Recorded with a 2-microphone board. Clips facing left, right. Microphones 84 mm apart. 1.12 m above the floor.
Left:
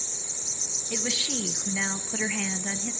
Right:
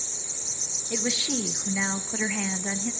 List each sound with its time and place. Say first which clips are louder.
0.9 s a woman speaking: right 3 dB; 15° right (ahead or behind), 0.8 m